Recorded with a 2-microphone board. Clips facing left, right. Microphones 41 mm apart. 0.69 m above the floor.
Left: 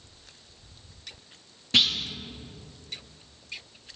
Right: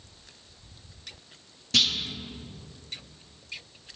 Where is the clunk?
25° left (ahead or behind), 1.0 m.